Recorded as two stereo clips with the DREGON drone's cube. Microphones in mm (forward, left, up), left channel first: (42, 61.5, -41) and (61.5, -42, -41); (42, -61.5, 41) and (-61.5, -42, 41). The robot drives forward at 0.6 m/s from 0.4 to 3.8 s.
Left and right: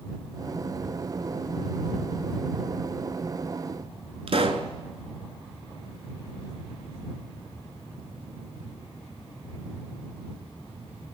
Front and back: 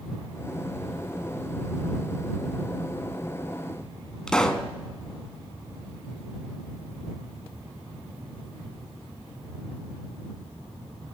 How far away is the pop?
About 0.8 m.